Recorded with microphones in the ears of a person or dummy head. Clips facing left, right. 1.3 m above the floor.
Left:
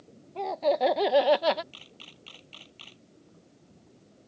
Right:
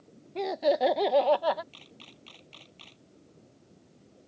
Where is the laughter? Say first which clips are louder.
Even; 30° right (ahead or behind); by 1.6 s 35° left (ahead or behind).